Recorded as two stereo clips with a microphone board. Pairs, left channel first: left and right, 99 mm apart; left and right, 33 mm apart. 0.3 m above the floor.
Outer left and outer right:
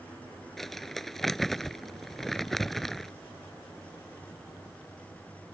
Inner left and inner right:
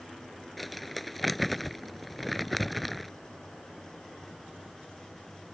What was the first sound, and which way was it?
Crumpling, 5° left (ahead or behind).